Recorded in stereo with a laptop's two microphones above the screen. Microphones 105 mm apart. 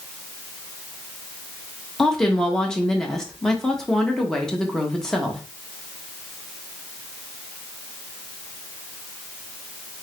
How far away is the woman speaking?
About 1.0 m.